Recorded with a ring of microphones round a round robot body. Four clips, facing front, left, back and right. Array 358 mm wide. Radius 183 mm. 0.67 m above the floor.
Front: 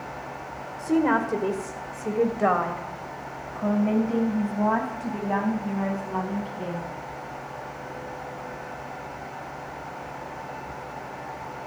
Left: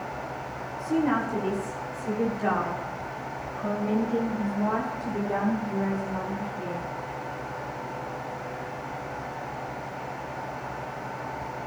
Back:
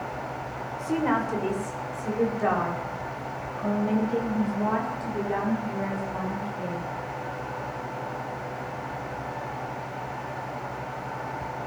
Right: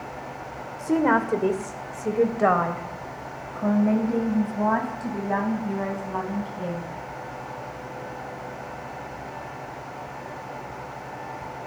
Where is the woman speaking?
80° right, 2 m; by 6.9 s 55° right, 5.5 m.